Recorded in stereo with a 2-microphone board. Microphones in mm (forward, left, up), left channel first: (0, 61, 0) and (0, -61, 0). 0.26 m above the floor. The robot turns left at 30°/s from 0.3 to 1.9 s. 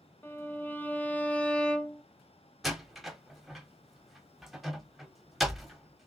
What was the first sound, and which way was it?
A violin, 15° left (ahead or behind).